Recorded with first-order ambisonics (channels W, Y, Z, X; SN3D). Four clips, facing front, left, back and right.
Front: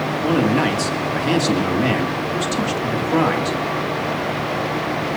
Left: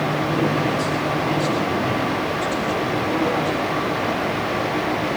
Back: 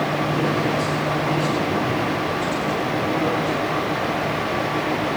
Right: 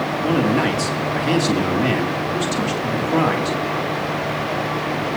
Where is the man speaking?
35° right, 2.5 m.